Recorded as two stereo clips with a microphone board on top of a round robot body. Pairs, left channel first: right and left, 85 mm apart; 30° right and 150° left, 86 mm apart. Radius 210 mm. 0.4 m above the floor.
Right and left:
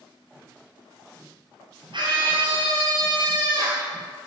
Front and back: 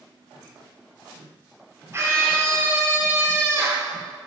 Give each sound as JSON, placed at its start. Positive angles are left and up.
{"t": 1.9, "sound": "a scream", "azimuth_deg": 95, "distance_m": 1.8}